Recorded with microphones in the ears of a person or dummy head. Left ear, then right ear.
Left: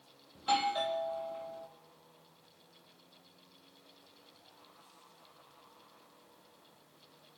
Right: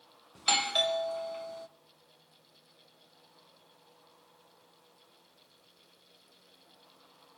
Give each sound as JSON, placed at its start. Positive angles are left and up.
{"t": 0.3, "sound": "a doorbell", "side_deg": -65, "distance_m": 0.6}